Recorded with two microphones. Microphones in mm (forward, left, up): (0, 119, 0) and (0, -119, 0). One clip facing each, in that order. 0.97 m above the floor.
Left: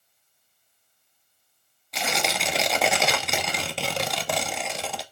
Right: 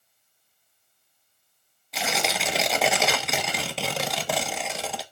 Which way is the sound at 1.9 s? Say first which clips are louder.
Even; centre (ahead or behind).